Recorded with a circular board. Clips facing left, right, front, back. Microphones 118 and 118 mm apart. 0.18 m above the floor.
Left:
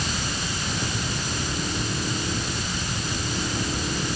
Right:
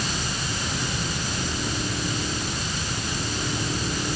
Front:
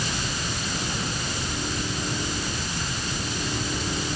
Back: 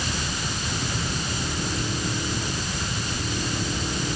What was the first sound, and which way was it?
Only background noise.